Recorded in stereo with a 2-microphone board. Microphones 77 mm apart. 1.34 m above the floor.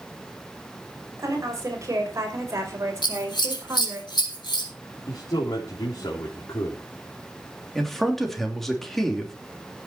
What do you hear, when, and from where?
1.2 s a woman speaking: 40° right (ahead or behind), 6 m; by 4.0 s 35° right (ahead or behind), 4.5 m
3.0 s scissors: 80° left, 3.5 m
5.1 s a man speaking: 70° left (ahead or behind), 3.5 m
7.8 s a man speaking: 5° left (ahead or behind), 3 m